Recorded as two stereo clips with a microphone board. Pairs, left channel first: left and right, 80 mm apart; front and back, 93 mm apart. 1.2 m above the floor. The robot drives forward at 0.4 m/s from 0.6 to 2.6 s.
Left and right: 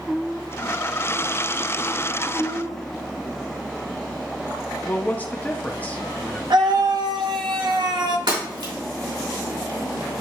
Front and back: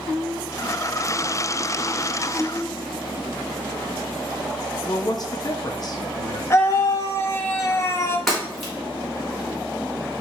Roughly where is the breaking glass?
Right.